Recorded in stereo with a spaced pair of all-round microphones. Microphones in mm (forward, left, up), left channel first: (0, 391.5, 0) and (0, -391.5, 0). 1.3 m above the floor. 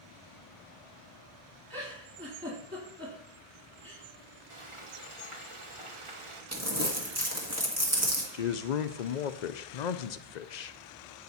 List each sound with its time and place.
1.7 s a giggle: 15° right (ahead or behind), 3.5 m
4.5 s frying: 40° right (ahead or behind), 1.2 m
6.5 s crumpling: 20° right (ahead or behind), 1.6 m
8.3 s a man speaking: 65° left (ahead or behind), 0.7 m